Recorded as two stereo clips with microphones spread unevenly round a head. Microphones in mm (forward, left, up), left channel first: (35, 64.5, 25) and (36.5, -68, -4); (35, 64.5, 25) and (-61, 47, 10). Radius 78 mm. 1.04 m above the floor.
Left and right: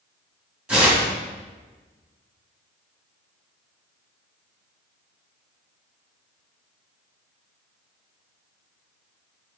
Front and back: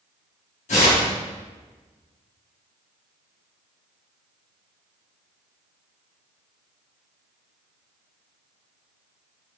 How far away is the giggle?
I don't hear a giggle.